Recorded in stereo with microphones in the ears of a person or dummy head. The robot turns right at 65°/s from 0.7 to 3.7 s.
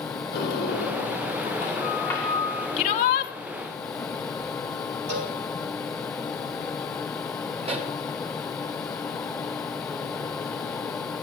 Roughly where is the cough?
No cough in this recording.